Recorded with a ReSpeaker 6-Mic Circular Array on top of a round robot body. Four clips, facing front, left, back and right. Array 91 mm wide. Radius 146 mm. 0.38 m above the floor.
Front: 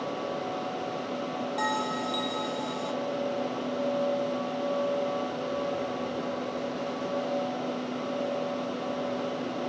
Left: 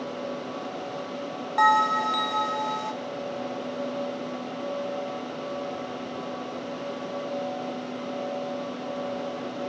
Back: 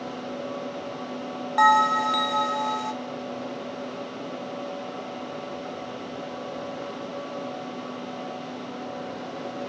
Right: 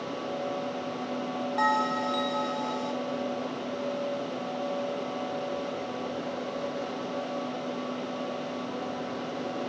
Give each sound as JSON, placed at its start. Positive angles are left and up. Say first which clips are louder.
{"t": 1.6, "sound": "a bell", "louder": "left 6 dB, back 14 dB", "azimuth_deg": 150, "distance_m": 1.4}